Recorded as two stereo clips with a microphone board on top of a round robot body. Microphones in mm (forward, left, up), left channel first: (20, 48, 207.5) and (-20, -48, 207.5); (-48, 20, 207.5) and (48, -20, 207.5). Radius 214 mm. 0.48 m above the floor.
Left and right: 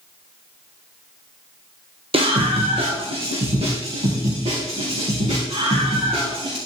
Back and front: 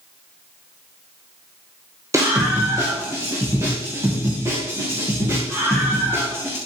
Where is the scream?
85° right, 2.5 m; by 6.6 s 90° right, 7.5 m.